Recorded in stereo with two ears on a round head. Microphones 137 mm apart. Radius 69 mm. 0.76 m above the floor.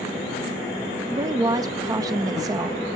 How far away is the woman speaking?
About 0.7 m.